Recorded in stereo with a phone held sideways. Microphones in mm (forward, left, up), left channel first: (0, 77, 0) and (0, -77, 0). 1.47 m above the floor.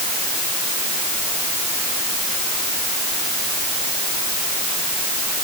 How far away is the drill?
No drill in this recording.